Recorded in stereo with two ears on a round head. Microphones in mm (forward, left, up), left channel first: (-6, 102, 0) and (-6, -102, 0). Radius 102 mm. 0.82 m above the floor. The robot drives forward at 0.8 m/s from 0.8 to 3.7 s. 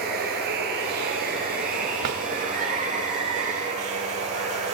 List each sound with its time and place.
0.0 s running water: 45° right (ahead or behind), 5 m; by 4.7 s 30° right (ahead or behind), 7 m
2.0 s a drawer: 80° right, 1.4 m; by 2.2 s 75° right (ahead or behind), 1.5 m